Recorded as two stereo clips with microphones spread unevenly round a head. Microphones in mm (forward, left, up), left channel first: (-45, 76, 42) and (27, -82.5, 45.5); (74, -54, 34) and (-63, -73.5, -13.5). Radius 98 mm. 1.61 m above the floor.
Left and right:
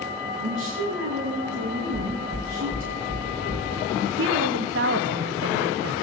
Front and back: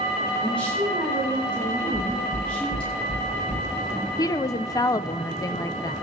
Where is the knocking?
10° right, 6.5 m.